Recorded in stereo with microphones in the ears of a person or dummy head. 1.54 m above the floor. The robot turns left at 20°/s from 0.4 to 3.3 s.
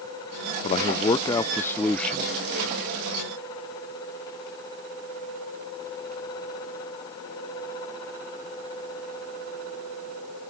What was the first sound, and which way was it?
A man speaking, 35° left.